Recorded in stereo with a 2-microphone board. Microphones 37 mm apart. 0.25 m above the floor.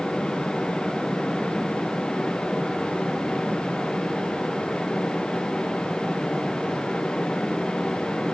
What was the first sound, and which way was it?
Only background noise.